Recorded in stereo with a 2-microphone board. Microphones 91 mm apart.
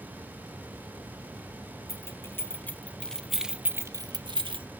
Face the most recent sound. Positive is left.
turn(degrees=-75)  # may be behind; listen again after turning